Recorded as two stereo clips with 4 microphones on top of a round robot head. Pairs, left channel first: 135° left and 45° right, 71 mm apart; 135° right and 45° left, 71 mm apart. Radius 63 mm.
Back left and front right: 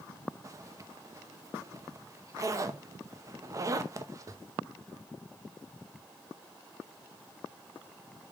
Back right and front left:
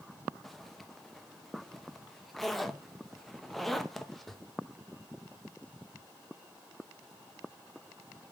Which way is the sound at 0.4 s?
50° right.